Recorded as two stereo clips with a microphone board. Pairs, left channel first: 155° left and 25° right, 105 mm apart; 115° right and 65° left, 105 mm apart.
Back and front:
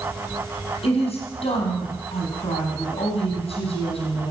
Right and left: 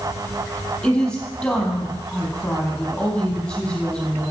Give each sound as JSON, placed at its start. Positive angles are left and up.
{"t": 0.8, "sound": "a woman speaking", "azimuth_deg": 165, "distance_m": 4.5}